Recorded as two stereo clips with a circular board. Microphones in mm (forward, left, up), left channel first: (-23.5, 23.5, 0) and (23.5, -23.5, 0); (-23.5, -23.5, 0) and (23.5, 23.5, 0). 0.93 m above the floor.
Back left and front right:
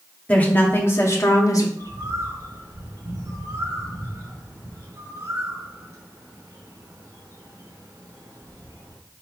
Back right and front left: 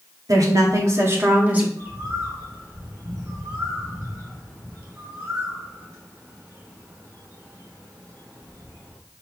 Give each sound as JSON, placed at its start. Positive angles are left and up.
{"t": 0.3, "sound": "a woman speaking", "azimuth_deg": 70, "distance_m": 2.0}
{"t": 1.8, "sound": "a bird", "azimuth_deg": -5, "distance_m": 3.0}